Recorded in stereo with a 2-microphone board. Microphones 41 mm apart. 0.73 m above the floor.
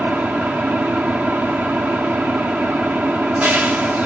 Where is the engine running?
45° right (ahead or behind), 1.0 m.